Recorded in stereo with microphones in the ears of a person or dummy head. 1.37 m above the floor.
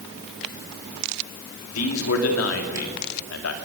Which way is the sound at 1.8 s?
80° left.